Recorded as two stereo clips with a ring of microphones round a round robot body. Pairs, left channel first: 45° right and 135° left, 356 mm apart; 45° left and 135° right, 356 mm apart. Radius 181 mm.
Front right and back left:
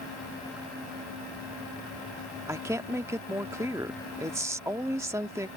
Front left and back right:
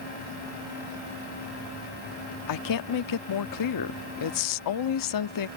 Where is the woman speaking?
55° left.